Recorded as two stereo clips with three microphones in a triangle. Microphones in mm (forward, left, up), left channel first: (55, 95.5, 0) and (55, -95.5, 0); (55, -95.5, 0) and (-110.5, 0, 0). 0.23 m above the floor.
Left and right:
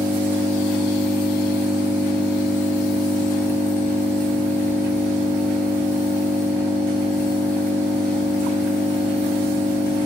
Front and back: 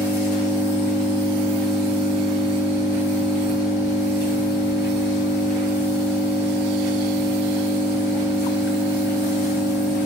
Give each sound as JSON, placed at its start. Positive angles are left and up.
{"t": 0.0, "sound": "an engine running", "azimuth_deg": -155, "distance_m": 1.3}